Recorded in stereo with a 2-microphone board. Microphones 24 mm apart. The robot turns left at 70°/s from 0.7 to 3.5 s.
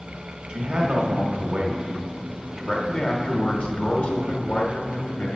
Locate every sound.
0.5 s a man speaking: 60° right, 1.3 m; by 5.4 s 105° left, 1.3 m